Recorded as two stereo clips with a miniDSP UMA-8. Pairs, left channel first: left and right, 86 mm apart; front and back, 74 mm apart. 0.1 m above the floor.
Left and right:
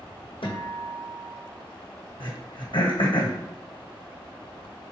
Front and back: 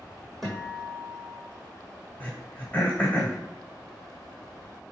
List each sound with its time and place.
0.4 s a guitar: 90° left, 1.3 m
2.2 s throat clearing: 70° left, 1.6 m